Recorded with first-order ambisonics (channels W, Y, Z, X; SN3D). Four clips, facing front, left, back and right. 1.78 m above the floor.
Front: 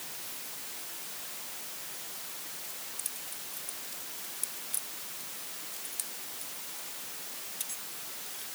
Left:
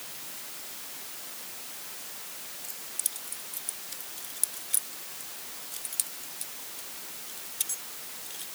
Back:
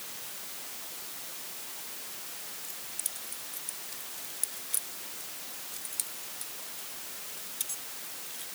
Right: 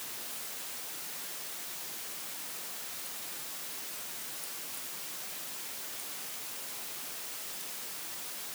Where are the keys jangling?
105° left.